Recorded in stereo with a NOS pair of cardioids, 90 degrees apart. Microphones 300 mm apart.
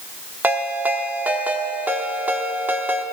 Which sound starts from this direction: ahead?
A ringtone, at 0.4 s.